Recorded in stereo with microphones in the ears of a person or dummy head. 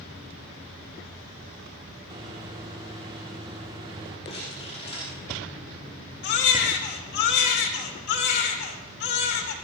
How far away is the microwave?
About 2 m.